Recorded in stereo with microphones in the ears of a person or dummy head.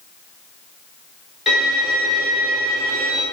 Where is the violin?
5° right (ahead or behind), 0.7 m.